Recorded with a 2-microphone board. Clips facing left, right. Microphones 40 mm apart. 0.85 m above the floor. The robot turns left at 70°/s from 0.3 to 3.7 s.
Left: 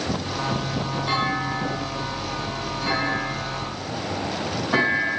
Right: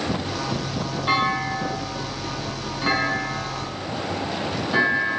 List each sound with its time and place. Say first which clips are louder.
1.1 s a clunk: right 4 dB; 25° right (ahead or behind), 5 m; by 5.2 s 30° left (ahead or behind), 5 m